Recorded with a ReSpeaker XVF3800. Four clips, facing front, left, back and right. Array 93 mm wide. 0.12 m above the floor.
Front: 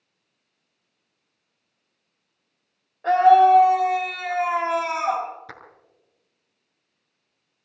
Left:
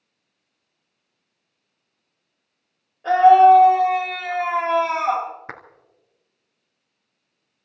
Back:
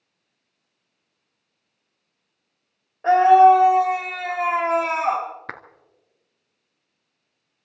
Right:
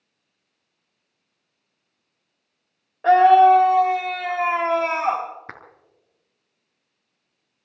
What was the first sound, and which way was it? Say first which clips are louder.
A scream: left 1 dB, back 2 dB; 115° right.